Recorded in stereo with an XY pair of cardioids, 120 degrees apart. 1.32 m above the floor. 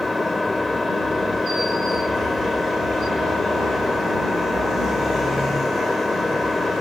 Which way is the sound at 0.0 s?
15° left.